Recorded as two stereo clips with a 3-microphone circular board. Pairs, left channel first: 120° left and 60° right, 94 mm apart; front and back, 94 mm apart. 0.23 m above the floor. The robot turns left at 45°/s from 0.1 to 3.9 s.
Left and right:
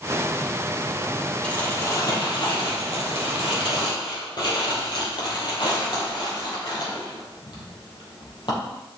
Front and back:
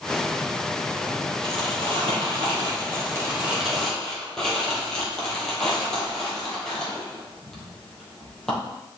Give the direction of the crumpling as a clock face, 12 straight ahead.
5 o'clock.